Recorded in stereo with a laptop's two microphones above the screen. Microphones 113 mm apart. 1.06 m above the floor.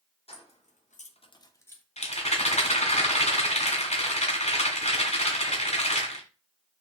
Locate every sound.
0.3 s keys jangling: 55° left (ahead or behind), 0.8 m; by 1.8 s 15° left (ahead or behind), 0.8 m
2.0 s a rattle: 65° left (ahead or behind), 1.2 m